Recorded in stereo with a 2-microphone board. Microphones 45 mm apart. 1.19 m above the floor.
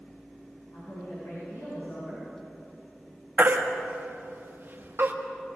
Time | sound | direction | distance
0.7 | a woman speaking | 75° left (ahead or behind) | 9 m
3.4 | a baby crying | 50° right (ahead or behind) | 1.8 m